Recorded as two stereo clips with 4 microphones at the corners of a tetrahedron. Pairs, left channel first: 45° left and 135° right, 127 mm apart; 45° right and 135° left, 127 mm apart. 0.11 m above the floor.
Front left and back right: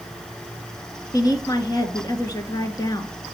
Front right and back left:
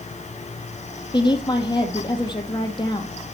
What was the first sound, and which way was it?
A woman speaking, 5° right.